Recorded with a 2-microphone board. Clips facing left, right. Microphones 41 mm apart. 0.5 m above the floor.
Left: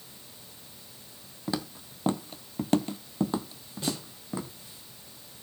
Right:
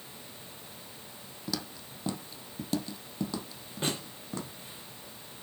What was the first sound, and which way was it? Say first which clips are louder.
Footsteps: left 4 dB; 30° left (ahead or behind).